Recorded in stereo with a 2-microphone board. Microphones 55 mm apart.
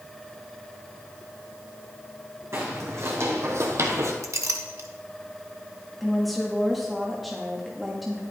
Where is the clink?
75° right (ahead or behind), 1.0 m.